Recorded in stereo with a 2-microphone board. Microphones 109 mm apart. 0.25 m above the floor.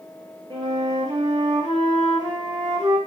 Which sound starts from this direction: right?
A flute, at 0.5 s.